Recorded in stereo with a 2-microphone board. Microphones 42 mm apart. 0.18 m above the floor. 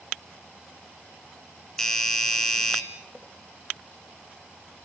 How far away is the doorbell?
About 3 m.